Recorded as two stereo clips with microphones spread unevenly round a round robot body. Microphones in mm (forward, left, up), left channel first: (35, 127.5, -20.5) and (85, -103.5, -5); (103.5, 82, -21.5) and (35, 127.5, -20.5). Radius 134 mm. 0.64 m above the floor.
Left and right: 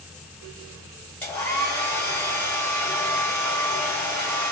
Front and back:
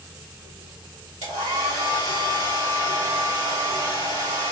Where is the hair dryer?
175° right, 1.9 m.